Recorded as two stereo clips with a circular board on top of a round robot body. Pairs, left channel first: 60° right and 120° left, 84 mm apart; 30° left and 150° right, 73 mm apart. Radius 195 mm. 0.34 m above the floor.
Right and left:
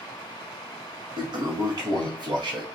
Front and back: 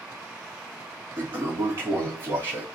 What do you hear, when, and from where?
1.2 s a toilet flushing: 155° left, 0.6 m